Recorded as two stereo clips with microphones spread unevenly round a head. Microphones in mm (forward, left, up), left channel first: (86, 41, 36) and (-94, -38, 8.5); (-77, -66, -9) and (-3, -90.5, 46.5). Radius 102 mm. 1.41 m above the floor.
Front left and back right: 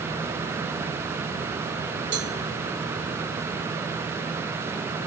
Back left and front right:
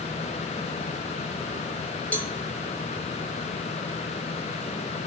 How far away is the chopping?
I don't hear chopping.